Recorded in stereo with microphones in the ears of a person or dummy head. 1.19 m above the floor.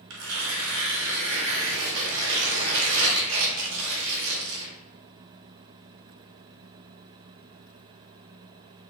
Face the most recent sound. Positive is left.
turn(degrees=-80)